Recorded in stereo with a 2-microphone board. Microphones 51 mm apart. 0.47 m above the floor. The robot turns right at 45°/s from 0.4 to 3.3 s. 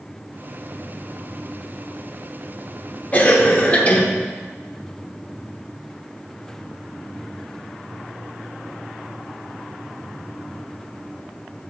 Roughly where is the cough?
Left.